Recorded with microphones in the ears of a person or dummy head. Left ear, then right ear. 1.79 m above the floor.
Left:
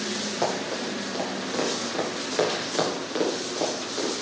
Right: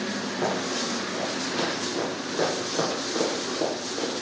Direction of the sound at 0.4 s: 35° left (ahead or behind).